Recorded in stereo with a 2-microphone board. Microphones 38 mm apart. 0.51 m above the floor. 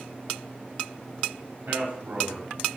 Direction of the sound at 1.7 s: 65° right (ahead or behind).